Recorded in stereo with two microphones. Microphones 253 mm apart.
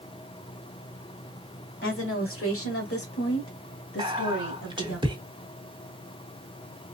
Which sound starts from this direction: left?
A woman speaking, at 1.8 s.